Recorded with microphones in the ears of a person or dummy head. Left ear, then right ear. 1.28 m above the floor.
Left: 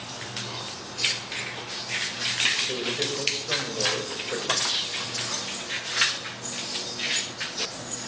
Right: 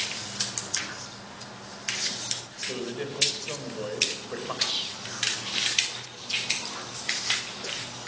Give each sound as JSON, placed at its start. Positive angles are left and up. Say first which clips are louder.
{"t": 2.7, "sound": "a man speaking", "louder": "left 6 dB", "side_deg": 10, "distance_m": 6.0}
{"t": 4.6, "sound": "whispering", "louder": "left 3 dB", "side_deg": 0, "distance_m": 3.0}